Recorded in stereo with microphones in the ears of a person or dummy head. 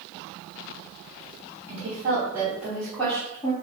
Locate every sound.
1.7 s a woman speaking: 45° right (ahead or behind), 1.2 m; by 3.5 s 20° left (ahead or behind), 1.0 m